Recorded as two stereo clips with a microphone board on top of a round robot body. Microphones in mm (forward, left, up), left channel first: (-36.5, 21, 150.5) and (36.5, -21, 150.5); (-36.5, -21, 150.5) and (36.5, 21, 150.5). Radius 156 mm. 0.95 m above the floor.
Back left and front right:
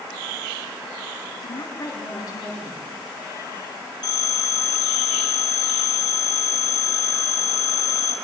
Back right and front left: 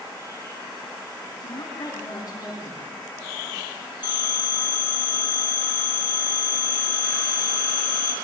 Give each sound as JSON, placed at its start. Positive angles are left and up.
{"t": 1.4, "sound": "a woman speaking", "azimuth_deg": 165, "distance_m": 8.0}
{"t": 4.0, "sound": "a phone ringing", "azimuth_deg": 180, "distance_m": 8.5}